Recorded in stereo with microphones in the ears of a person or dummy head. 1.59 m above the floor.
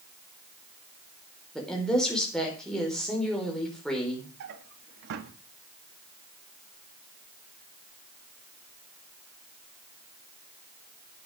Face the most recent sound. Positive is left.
turn(degrees=-60)  # may be behind; listen again after turning